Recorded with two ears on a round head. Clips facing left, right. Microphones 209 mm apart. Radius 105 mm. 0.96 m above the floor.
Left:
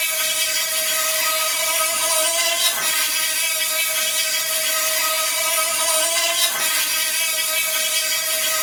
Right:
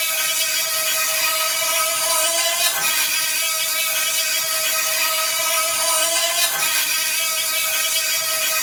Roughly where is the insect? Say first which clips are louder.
Left 1 dB; right.